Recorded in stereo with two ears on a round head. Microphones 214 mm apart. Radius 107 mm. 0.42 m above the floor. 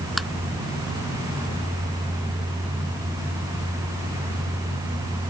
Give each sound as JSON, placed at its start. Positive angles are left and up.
{"t": 0.2, "sound": "tapping", "side_deg": 0}